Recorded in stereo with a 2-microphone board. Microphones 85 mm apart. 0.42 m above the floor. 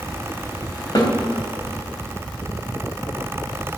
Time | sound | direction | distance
0.9 | a snare drum | 55° left (ahead or behind) | 3 m